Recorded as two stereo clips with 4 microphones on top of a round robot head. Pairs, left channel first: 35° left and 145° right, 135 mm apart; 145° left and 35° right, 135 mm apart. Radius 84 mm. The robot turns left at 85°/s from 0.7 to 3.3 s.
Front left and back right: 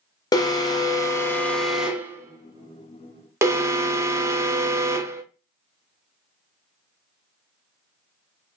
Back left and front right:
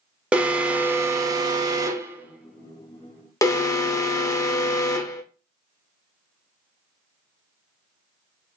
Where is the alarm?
35° left, 0.7 m; by 5.2 s 175° left, 0.7 m.